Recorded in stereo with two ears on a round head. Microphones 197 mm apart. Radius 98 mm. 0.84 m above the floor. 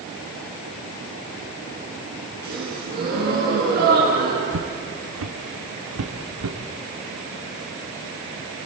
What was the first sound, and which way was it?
A gasp, 45° right (ahead or behind).